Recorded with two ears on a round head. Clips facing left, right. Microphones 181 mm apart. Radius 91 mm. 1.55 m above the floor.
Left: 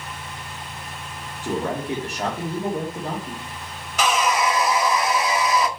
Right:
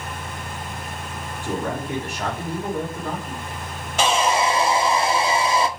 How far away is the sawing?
About 1.0 m.